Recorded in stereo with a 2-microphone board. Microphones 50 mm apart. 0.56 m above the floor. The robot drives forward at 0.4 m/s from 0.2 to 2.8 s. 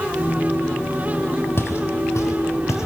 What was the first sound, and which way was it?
Footsteps, 55° left (ahead or behind).